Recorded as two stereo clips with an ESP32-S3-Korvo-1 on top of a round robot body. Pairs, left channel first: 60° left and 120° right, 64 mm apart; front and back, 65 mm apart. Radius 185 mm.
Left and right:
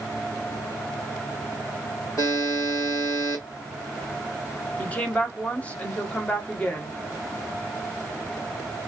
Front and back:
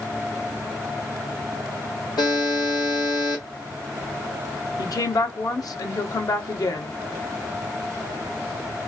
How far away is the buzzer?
About 0.8 m.